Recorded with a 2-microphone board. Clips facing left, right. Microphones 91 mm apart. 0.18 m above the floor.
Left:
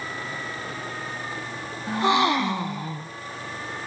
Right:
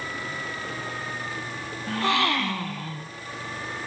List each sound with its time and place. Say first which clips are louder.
1.9 s a gasp: left 4 dB; 20° left (ahead or behind), 0.6 m